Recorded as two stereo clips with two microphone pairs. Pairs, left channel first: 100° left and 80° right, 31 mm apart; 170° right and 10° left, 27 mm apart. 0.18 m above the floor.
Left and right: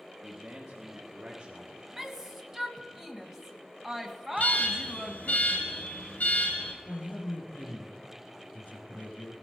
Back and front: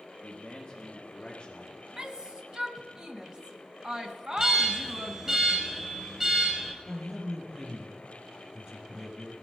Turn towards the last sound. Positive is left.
turn(degrees=70)